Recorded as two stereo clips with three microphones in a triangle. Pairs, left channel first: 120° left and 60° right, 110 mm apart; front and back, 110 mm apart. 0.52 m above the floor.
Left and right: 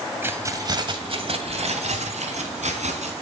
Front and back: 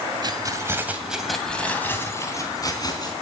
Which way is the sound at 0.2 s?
130° right.